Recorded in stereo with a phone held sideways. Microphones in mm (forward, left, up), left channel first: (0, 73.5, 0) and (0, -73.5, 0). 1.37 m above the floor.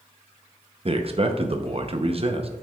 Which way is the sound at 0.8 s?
45° right (ahead or behind).